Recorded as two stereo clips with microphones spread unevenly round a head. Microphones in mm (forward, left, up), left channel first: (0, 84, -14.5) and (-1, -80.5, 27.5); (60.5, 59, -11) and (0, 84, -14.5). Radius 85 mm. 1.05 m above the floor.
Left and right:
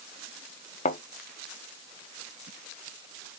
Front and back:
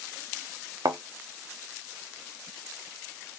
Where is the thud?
145° left, 0.7 m.